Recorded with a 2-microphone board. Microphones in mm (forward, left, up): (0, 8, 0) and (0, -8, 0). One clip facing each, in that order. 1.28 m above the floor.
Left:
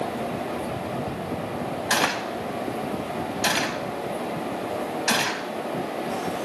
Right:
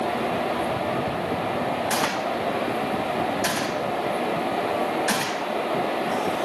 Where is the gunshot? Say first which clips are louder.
Even; 45° left (ahead or behind), 1.6 m.